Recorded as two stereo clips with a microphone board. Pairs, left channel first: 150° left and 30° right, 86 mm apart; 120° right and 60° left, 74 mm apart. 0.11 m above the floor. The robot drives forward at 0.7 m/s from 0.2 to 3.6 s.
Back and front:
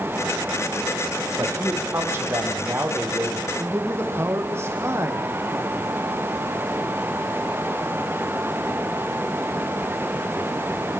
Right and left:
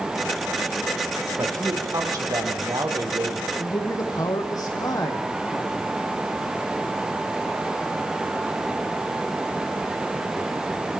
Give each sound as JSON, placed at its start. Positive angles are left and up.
{"t": 1.4, "sound": "a man speaking", "azimuth_deg": 25, "distance_m": 4.5}
{"t": 3.6, "sound": "a man speaking", "azimuth_deg": -85, "distance_m": 4.0}